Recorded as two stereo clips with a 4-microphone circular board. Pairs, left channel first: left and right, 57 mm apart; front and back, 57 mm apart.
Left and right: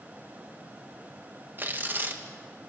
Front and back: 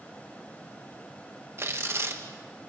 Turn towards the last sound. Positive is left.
turn(degrees=-140)